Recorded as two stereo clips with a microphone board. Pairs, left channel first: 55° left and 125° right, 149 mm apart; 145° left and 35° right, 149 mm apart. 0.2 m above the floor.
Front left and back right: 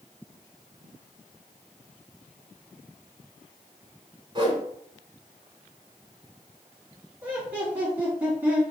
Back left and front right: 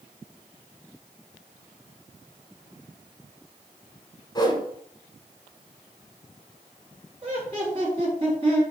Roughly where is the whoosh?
Behind.